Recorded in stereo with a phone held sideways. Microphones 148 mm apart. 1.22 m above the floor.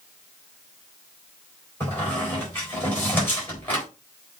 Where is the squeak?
15° left (ahead or behind), 4 m.